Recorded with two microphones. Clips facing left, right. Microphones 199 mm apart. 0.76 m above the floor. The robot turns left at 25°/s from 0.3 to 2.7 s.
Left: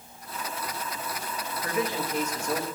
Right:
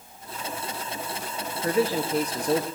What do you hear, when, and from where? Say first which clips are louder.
1.6 s a man speaking: right 6 dB; 30° right (ahead or behind), 0.6 m; by 2.7 s 35° right (ahead or behind), 0.6 m